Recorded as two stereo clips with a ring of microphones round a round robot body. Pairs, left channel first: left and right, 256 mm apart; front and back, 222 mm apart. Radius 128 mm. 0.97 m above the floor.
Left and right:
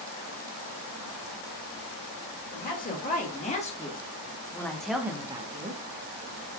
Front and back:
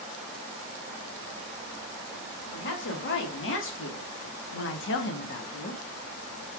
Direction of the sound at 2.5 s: 35° left.